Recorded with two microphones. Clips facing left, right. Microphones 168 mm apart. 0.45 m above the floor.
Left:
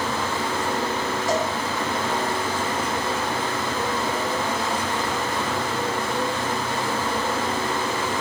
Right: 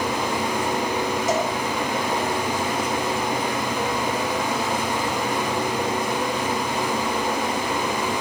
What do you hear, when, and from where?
1.3 s a cowbell: 20° right (ahead or behind), 4 m